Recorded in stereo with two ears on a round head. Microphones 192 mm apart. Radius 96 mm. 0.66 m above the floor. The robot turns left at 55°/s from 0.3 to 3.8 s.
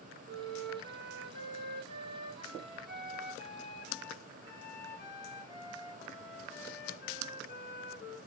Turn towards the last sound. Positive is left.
turn(degrees=125)